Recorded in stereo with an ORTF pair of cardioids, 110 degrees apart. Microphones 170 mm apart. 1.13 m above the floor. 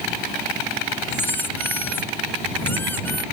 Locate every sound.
1.1 s a squeak: 10° left